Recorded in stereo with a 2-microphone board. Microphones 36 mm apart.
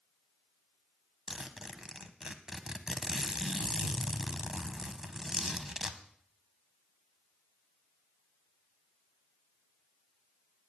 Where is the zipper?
15° right (ahead or behind), 0.8 m.